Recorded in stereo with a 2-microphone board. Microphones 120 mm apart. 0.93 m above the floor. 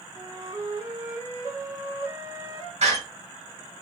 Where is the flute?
35° right (ahead or behind), 1.5 m.